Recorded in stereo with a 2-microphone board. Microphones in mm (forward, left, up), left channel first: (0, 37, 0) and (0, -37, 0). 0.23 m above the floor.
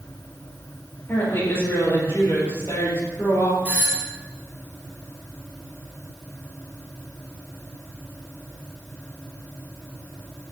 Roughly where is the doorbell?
Right.